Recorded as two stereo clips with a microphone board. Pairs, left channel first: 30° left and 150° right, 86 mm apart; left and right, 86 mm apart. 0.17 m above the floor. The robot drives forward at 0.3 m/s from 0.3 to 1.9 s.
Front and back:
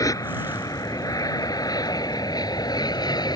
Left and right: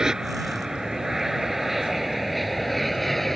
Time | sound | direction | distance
0.0 | an aircraft | 10° right | ?